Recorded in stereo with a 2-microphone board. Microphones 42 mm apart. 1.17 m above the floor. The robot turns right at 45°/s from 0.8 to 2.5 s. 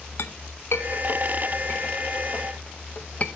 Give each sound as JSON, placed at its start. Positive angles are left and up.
{"t": 0.2, "sound": "a clink", "side_deg": 60, "distance_m": 0.6}